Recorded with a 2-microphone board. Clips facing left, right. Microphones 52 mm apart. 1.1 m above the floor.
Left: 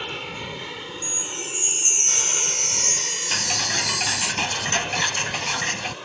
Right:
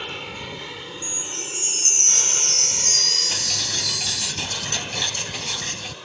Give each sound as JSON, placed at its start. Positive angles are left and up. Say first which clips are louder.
{"t": 0.0, "sound": "an aircraft", "louder": "left 1 dB", "side_deg": 5}
{"t": 1.0, "sound": "a chime", "louder": "left 1 dB", "side_deg": 20}
{"t": 3.3, "sound": "ticking", "louder": "left 4 dB", "side_deg": 40}